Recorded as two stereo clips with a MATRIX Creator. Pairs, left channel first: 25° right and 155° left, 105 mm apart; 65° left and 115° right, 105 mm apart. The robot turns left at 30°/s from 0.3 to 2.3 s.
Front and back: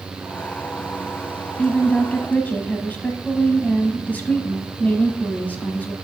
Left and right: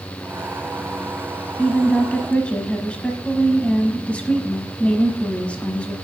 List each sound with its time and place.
1.6 s a woman speaking: 35° left, 1.0 m; by 5.9 s 15° left, 1.0 m